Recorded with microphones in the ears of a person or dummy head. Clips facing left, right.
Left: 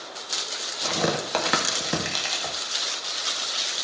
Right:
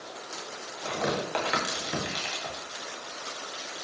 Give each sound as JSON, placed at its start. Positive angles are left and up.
{"t": 0.8, "sound": "tearing paper", "side_deg": 75, "distance_m": 2.0}